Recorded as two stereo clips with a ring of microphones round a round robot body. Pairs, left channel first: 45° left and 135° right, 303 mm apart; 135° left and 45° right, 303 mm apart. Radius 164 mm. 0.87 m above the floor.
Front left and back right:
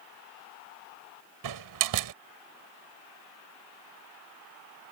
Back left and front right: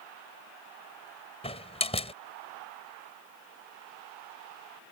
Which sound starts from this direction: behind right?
A door slam, at 1.4 s.